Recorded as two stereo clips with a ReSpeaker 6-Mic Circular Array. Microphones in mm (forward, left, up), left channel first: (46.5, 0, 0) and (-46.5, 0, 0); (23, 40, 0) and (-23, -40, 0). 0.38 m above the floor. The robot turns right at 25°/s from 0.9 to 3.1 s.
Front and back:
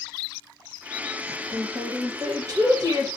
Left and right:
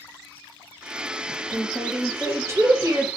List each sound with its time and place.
1.3 s a woman speaking: 160° left, 1.5 m; by 3.1 s 155° right, 1.5 m